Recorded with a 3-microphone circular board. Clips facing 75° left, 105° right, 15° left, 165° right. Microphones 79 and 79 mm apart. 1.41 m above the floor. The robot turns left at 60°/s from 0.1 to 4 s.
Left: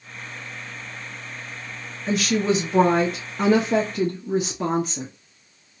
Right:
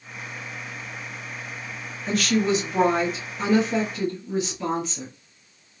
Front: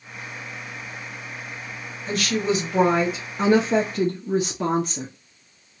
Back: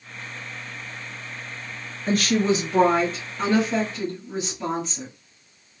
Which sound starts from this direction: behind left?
A woman speaking, at 2.1 s.